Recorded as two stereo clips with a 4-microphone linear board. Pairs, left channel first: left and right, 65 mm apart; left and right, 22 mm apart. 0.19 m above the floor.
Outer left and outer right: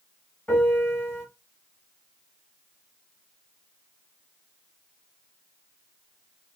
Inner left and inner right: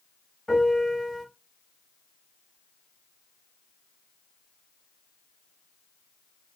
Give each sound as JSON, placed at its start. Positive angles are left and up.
{"t": 0.5, "sound": "a piano", "side_deg": 25, "distance_m": 1.7}